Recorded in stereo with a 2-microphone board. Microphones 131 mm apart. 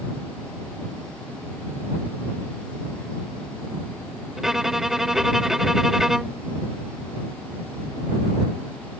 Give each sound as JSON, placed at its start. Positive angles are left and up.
{"t": 4.4, "sound": "a violin", "side_deg": -5}